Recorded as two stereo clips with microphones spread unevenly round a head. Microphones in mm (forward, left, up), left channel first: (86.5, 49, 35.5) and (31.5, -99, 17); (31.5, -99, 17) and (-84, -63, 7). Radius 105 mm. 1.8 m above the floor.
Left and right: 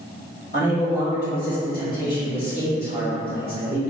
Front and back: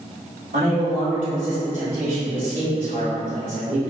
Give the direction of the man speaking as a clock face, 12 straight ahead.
8 o'clock.